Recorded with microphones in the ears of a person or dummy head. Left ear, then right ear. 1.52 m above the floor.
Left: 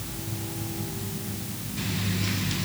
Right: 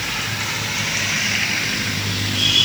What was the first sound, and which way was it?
Only background noise.